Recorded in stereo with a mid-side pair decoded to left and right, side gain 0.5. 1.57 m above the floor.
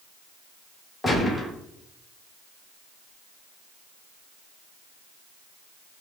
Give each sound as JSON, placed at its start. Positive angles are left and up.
{"t": 1.0, "sound": "a gunshot", "azimuth_deg": 20, "distance_m": 1.4}